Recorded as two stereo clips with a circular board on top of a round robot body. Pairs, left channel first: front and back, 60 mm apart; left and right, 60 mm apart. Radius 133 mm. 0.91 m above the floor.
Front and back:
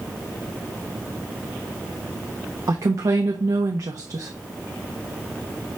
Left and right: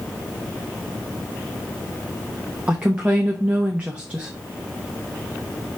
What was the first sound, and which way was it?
A woman speaking, 160° right.